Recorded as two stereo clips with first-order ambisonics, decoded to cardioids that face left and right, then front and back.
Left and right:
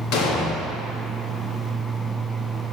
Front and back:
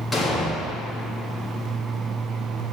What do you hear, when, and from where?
0.1 s an explosion: 75° left, 1.2 m